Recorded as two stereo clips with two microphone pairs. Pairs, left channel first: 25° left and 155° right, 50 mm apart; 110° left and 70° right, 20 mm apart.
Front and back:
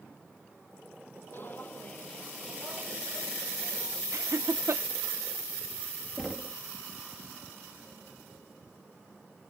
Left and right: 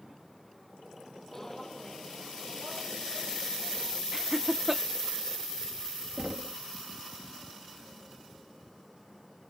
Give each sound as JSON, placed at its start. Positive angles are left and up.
{"t": 1.3, "sound": "footsteps", "azimuth_deg": 40}
{"t": 4.1, "sound": "laughter", "azimuth_deg": -145}
{"t": 6.2, "sound": "knocking", "azimuth_deg": -60}